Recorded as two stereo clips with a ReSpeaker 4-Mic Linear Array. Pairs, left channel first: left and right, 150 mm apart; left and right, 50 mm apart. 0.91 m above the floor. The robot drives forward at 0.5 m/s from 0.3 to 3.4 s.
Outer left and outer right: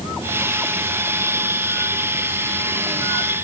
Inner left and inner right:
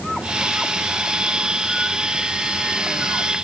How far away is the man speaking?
No man speaking in this recording.